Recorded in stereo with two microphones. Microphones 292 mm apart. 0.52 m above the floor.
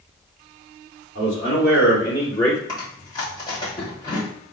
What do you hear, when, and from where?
1.1 s a man speaking: 40° left (ahead or behind), 1.6 m; by 2.6 s 15° left (ahead or behind), 1.4 m
2.7 s chewing: 10° left (ahead or behind), 1.5 m